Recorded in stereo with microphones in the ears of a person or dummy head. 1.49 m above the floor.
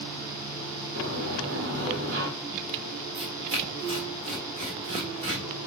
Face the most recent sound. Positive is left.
turn(degrees=-35)  # may be behind; listen again after turning